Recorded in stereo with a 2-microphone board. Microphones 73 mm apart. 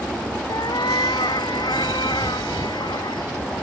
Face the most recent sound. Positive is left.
turn(degrees=85)